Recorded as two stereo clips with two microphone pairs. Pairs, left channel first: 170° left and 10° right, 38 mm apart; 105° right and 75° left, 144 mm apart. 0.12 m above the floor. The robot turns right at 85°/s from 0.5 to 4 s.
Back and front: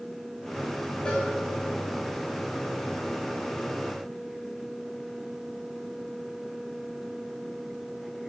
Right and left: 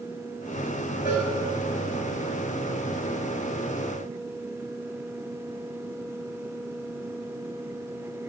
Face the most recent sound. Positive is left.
turn(degrees=110)